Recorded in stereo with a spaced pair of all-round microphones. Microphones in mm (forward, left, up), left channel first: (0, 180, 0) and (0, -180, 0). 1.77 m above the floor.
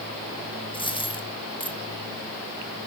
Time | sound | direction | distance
0.7 | a dropped coin | 15° left (ahead or behind) | 1.7 m